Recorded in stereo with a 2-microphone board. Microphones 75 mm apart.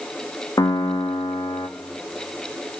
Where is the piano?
50° left (ahead or behind), 0.6 m.